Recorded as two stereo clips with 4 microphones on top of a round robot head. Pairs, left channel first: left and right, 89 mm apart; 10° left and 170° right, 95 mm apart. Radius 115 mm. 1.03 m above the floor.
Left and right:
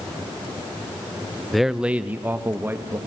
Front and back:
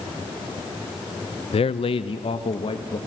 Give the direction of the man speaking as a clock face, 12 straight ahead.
12 o'clock.